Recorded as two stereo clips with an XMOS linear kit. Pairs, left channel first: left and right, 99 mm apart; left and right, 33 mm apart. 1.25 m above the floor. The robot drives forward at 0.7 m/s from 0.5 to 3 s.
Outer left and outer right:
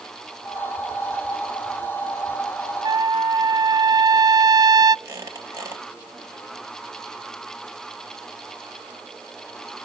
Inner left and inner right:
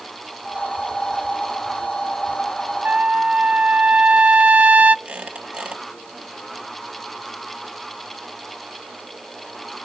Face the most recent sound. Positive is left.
turn(degrees=-30)  # may be behind; listen again after turning